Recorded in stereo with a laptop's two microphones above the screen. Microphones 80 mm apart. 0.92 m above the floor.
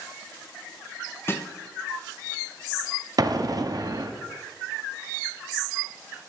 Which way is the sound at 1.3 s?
30° left (ahead or behind).